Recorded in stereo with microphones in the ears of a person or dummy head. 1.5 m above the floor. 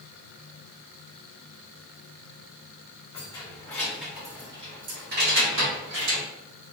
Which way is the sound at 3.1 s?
25° left (ahead or behind).